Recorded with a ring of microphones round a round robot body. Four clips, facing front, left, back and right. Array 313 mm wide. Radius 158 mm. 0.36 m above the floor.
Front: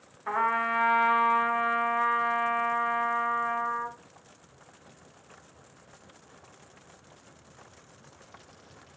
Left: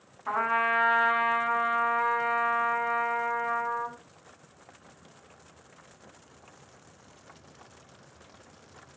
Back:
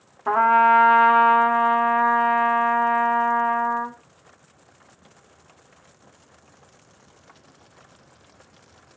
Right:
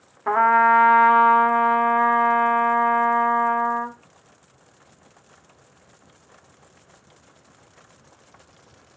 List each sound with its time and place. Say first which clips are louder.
0.3 s a trumpet: right 11 dB, back 12 dB; 135° right, 1.4 m